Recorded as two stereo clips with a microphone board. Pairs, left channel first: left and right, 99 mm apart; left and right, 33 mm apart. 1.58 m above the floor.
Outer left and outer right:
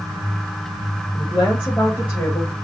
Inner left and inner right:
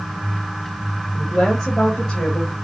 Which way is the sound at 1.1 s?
10° left (ahead or behind).